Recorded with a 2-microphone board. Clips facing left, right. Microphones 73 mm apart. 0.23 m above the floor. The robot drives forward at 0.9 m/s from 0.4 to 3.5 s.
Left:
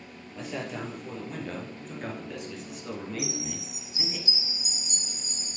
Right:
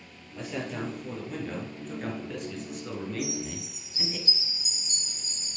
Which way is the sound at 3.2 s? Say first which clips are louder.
Right 1 dB; 15° left (ahead or behind).